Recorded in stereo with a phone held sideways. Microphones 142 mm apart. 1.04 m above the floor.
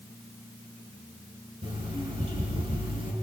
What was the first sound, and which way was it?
An alarm clock, 45° right (ahead or behind).